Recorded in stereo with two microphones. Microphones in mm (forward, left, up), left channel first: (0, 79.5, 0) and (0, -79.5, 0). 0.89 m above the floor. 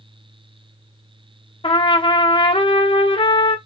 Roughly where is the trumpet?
Left.